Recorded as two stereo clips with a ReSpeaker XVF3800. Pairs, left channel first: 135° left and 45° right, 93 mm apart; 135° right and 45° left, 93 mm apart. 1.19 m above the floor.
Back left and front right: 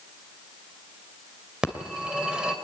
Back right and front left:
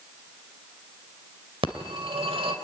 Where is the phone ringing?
35° left, 2.5 m.